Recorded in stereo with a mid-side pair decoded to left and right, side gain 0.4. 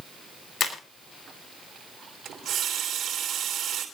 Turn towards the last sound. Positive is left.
turn(degrees=-70)